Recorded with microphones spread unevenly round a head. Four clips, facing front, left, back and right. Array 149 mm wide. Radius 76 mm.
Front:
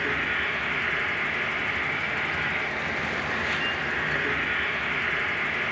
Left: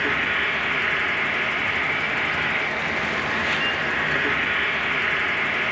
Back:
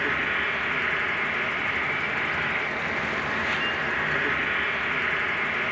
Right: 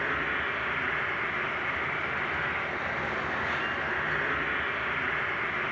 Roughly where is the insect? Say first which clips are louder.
Left 6 dB, back 1 dB; left.